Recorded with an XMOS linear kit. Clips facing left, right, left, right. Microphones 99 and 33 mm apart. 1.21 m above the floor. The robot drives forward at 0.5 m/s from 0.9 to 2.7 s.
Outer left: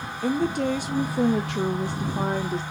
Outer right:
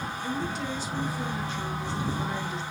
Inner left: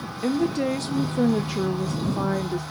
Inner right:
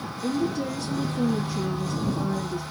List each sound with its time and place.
0.2 s a woman speaking: 60° left (ahead or behind), 0.6 m; by 2.6 s 40° left (ahead or behind), 0.8 m